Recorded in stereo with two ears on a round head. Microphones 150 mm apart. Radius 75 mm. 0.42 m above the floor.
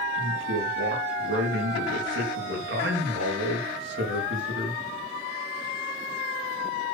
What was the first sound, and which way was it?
A man speaking, 80° right.